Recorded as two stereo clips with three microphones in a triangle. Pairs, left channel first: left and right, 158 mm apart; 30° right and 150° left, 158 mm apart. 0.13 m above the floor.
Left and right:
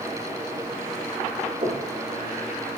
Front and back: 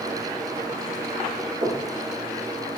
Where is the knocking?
155° right, 8 m.